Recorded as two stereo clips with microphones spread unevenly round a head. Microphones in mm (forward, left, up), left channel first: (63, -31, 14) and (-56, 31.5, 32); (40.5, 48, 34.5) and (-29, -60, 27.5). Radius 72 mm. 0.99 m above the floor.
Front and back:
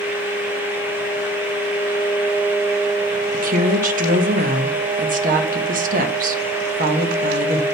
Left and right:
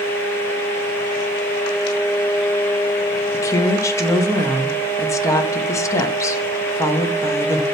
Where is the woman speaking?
125° left, 1.1 m.